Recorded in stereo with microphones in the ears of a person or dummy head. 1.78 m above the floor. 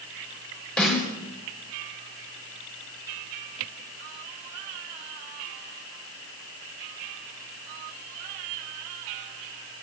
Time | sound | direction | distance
0.8 | a snare drum | centre (ahead or behind) | 6 m